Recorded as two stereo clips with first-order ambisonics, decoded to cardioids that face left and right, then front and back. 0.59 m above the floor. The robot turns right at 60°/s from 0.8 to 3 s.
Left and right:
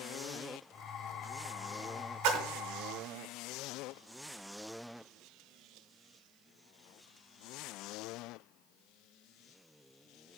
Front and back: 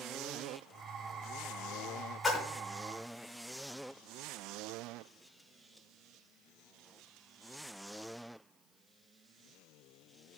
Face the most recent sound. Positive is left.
turn(degrees=-30)